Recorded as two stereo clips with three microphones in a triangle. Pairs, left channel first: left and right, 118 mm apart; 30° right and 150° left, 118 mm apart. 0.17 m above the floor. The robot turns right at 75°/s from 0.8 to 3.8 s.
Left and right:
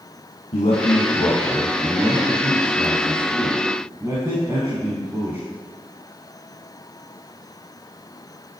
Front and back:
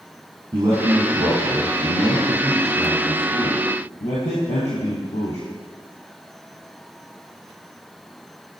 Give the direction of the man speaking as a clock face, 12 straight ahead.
9 o'clock.